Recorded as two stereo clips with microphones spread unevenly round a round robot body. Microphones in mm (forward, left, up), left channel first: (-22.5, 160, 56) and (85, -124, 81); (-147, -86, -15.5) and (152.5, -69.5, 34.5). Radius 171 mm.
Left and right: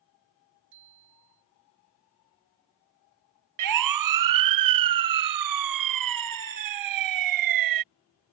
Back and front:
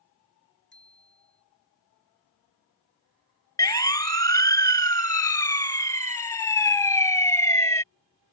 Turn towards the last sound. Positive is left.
turn(degrees=-95)